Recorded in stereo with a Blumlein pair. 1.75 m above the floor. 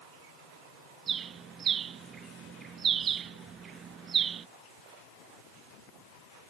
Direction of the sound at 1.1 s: 25° right.